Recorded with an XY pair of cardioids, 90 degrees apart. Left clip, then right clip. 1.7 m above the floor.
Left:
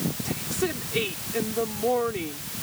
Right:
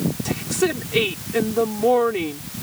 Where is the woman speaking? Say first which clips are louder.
Right 8 dB; 60° right.